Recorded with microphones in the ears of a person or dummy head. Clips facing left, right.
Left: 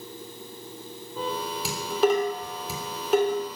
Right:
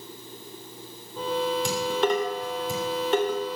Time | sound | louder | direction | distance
1.6 | dishes clattering | left 1 dB | 5° left (ahead or behind) | 3.5 m